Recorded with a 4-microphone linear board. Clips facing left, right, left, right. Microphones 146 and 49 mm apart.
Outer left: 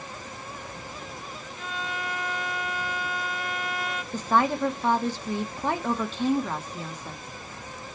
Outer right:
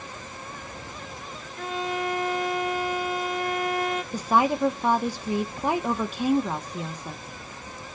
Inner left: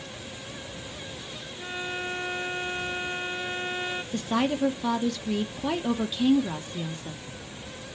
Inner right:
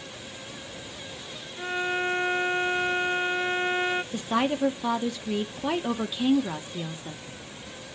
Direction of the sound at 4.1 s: 10° right (ahead or behind).